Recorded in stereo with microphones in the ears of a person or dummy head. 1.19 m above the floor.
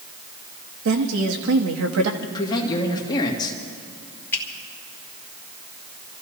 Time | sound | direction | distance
0.8 | a woman speaking | 75° right (ahead or behind) | 1.7 m
2.2 | a man speaking | 20° left (ahead or behind) | 1.9 m
4.3 | a finger snap | 15° left (ahead or behind) | 2.5 m